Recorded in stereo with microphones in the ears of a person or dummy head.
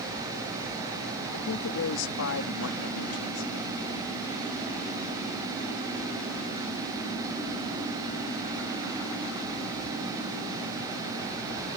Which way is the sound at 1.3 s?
80° left.